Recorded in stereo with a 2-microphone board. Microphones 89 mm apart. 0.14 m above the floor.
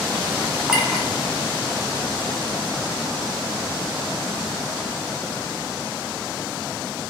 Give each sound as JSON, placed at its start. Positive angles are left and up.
{"t": 0.7, "sound": "a clink", "side_deg": -10, "distance_m": 1.1}